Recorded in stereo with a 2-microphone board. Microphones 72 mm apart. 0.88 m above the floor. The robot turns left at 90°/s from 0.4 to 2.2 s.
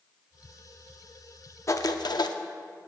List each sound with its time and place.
1.7 s writing: 135° left, 0.6 m; by 2.4 s 85° left, 0.6 m